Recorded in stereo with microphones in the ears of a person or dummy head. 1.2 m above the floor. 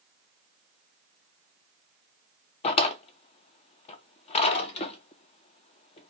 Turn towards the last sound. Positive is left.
turn(degrees=30)  # may be behind; listen again after turning